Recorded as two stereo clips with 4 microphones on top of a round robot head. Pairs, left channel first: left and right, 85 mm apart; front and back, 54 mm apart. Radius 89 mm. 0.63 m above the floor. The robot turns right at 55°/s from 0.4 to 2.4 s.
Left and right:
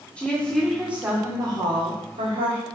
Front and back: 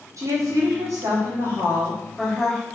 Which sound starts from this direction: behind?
A woman speaking, at 0.2 s.